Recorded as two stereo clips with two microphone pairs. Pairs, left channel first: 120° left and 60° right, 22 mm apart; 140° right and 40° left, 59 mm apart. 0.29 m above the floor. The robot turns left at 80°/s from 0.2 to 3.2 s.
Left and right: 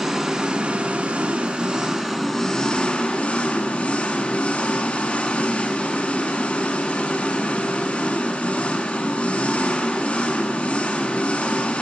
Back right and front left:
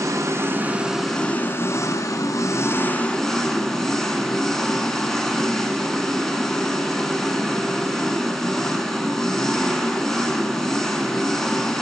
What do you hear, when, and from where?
0.0 s an engine running: 15° left, 1.3 m; by 11.8 s 135° left, 1.3 m